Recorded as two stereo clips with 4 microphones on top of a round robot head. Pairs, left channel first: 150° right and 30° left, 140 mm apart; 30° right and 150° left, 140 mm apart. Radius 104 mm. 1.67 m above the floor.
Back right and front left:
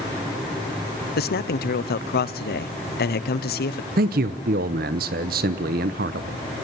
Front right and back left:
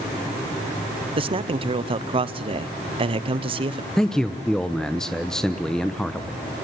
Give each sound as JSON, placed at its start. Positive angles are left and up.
{"t": 1.2, "sound": "a man speaking", "azimuth_deg": -160, "distance_m": 1.0}
{"t": 4.0, "sound": "a man speaking", "azimuth_deg": 55, "distance_m": 0.9}